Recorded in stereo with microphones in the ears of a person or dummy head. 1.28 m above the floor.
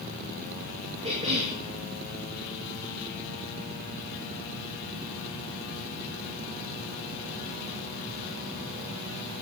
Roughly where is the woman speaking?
I don't hear a woman speaking.